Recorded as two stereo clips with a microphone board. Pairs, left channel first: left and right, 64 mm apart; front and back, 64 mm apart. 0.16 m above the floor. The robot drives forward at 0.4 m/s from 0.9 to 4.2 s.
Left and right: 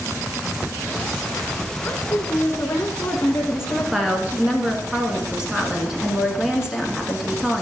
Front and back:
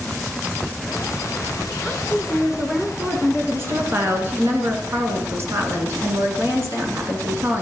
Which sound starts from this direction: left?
A woman speaking, at 1.8 s.